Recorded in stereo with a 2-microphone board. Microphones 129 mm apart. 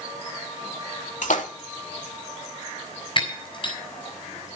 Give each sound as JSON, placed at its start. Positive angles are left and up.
{"t": 1.2, "sound": "a splash", "side_deg": 80, "distance_m": 3.5}
{"t": 3.2, "sound": "breaking glass", "side_deg": 40, "distance_m": 6.0}